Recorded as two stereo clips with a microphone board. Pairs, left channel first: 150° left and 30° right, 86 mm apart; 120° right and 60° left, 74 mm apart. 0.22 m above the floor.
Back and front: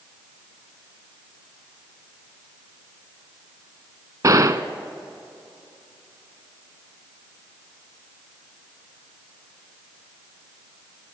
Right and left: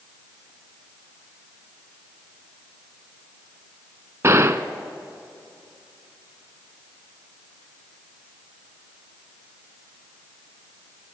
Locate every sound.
4.2 s a gunshot: 15° left, 0.5 m